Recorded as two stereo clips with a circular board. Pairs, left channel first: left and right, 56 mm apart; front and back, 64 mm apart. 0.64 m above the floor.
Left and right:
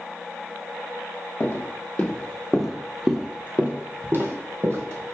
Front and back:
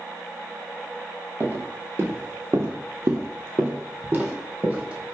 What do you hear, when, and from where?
1.4 s footsteps: 130° left, 1.1 m; by 5.2 s 110° right, 1.4 m